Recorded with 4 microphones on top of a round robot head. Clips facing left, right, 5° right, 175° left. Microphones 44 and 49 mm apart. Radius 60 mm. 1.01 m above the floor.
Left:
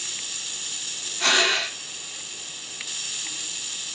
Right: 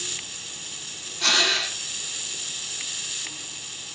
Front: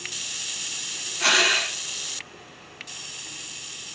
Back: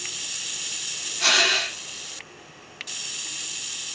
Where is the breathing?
55° left, 0.9 m.